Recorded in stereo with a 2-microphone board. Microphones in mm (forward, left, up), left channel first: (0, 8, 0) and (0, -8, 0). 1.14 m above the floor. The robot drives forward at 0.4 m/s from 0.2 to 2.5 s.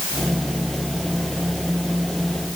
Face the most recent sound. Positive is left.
No sound to turn to.